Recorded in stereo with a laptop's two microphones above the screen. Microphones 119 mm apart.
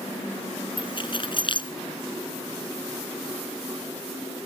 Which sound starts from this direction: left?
Keys jangling, at 0.8 s.